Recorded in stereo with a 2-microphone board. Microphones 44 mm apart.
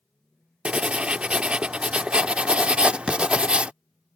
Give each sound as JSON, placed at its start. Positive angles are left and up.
{"t": 0.7, "sound": "writing", "side_deg": -25}